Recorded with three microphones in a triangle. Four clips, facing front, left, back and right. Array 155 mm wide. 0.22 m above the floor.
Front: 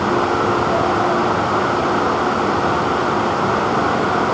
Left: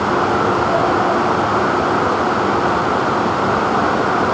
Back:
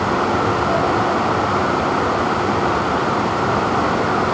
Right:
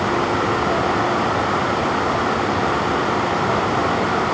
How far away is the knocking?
I don't hear knocking.